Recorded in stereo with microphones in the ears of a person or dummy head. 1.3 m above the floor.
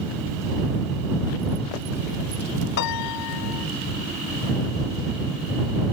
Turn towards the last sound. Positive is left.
turn(degrees=55)  # may be behind; listen again after turning